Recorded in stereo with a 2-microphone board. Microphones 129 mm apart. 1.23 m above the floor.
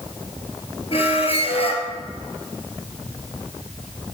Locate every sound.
0.9 s a squeak: 55° left (ahead or behind), 2.0 m